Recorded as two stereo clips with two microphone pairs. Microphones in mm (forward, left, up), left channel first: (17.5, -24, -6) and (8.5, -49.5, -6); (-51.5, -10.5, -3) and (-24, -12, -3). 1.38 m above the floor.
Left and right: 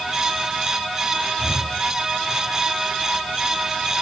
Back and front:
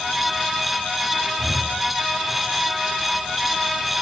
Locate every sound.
1.4 s breathing: 60° right, 3.5 m